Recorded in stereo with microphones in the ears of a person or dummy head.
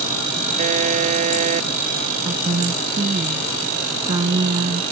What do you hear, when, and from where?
0.6 s a buzzer: 40° right (ahead or behind)
2.2 s a woman speaking: 25° right (ahead or behind)